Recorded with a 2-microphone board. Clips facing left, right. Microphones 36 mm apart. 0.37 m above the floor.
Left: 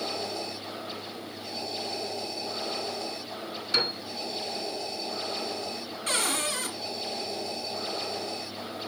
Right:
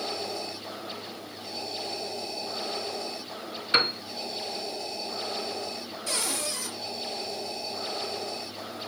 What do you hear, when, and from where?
3.7 s a piano: 35° right (ahead or behind), 1.0 m
6.1 s a cupboard door: 55° left (ahead or behind), 2 m